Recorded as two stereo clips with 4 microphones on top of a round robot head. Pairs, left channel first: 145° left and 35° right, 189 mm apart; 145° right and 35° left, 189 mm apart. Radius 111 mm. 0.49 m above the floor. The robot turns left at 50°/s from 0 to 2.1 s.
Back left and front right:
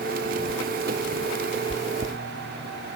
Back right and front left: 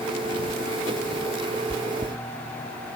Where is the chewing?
5° right; by 2.2 s 25° right.